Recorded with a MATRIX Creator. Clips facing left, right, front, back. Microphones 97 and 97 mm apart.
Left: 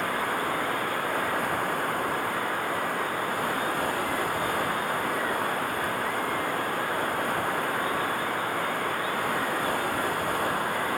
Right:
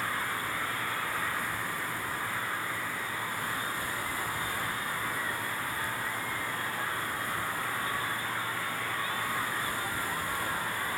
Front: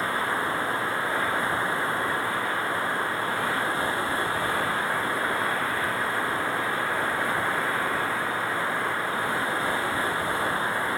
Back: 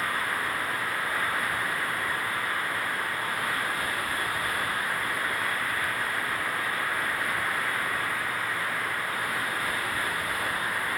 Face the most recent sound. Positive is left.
turn(degrees=60)